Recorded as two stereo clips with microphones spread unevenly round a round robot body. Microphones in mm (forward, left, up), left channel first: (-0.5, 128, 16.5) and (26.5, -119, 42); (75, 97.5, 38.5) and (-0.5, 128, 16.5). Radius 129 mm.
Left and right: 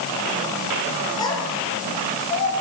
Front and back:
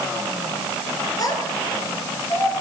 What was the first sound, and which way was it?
A child speaking, 20° left.